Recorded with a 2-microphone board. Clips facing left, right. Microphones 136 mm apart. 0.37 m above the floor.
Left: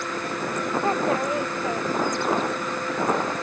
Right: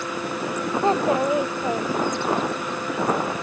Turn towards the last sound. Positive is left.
turn(degrees=-20)  # may be behind; listen again after turning